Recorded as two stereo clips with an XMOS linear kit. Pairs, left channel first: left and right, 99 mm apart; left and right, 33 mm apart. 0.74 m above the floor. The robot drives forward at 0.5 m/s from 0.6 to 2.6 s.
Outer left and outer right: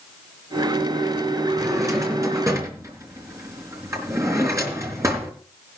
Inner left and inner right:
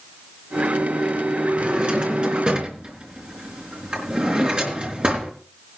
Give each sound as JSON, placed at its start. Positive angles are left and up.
{"t": 1.6, "sound": "a drawer", "side_deg": -35, "distance_m": 3.5}